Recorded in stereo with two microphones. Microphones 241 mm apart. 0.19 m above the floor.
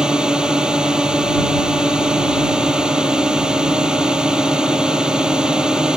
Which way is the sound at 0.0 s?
5° right (ahead or behind).